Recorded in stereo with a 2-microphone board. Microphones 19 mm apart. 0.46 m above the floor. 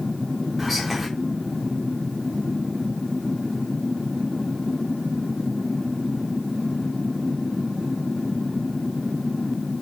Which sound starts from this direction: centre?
Whispering, at 0.6 s.